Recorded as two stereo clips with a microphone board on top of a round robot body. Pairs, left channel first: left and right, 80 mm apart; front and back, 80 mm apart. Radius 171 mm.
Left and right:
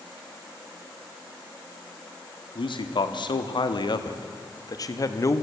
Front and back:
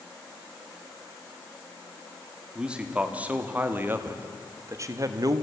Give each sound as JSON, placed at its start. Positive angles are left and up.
{"t": 2.5, "sound": "a man speaking", "azimuth_deg": 100, "distance_m": 2.5}